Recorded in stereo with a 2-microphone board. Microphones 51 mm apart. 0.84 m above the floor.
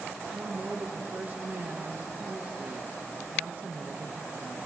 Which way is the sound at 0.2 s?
35° right (ahead or behind).